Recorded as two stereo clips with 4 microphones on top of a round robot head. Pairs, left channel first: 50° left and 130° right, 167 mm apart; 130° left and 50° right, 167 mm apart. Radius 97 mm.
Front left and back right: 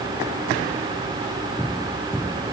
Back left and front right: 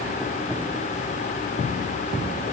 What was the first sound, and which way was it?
Only background noise.